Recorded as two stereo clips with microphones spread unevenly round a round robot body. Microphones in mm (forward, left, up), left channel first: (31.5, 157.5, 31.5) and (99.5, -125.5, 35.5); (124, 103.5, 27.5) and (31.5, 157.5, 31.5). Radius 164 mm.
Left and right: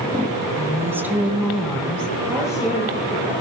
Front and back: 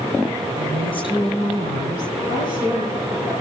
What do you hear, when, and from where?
0.6 s a woman speaking: 155° right, 3 m; by 2.1 s 175° right, 3.5 m
2.3 s a woman speaking: 165° right, 9 m